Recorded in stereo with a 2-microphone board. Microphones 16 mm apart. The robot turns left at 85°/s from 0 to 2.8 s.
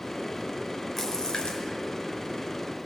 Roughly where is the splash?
Behind left.